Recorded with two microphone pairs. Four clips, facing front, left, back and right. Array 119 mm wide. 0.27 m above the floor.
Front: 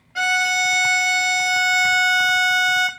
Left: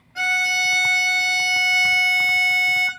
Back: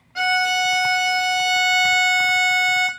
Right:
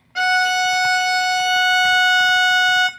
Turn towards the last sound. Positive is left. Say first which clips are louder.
# right 7 dB, back 1 dB
turn(degrees=-65)